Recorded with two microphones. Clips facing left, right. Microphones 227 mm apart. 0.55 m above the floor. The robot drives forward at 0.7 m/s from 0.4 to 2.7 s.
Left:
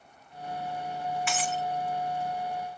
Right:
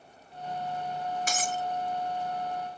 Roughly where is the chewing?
I don't hear chewing.